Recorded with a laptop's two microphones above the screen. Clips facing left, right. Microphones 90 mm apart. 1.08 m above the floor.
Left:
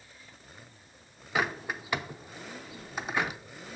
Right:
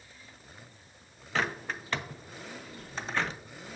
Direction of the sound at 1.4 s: 10° left (ahead or behind).